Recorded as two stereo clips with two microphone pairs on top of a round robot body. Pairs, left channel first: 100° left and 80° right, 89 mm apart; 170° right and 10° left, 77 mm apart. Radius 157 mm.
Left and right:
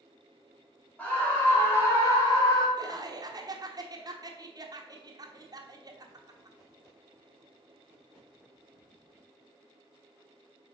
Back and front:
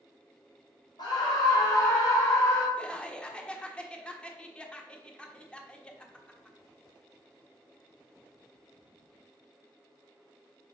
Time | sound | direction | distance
1.0 | a scream | 175° left | 3.5 m
2.8 | laughter | 100° right | 1.3 m